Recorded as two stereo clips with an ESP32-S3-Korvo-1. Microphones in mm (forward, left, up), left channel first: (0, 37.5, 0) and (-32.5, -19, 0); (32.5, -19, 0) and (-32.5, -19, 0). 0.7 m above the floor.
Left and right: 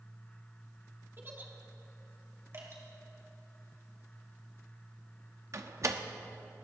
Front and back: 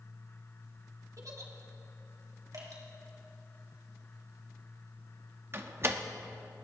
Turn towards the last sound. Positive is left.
turn(degrees=-140)